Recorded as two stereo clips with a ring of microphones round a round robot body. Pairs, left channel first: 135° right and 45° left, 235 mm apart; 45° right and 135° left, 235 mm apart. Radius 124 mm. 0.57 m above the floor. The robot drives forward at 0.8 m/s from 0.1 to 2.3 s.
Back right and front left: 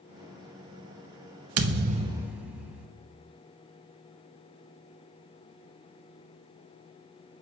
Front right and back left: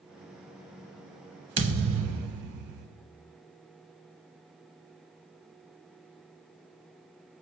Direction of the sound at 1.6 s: 70° left.